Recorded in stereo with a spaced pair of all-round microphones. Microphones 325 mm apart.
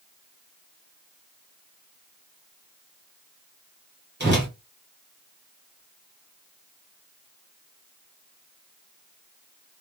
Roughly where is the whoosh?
Right.